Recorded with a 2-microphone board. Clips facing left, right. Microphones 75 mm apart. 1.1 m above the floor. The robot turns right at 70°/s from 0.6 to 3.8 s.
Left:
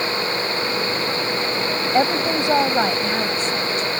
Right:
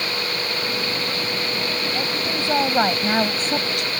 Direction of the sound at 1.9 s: 125° left.